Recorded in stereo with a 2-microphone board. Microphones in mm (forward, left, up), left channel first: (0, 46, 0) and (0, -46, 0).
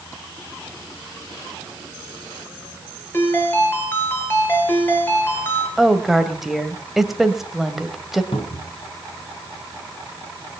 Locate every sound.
3.1 s a ringtone: 20° left (ahead or behind), 5 m
5.8 s a woman speaking: centre (ahead or behind), 2 m
8.3 s a cupboard door: 75° left (ahead or behind), 3.5 m